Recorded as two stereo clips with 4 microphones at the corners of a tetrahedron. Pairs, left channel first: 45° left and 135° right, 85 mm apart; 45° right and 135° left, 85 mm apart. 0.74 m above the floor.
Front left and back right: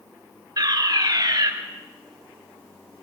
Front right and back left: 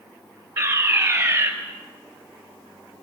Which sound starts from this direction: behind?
A fire alarm, at 0.6 s.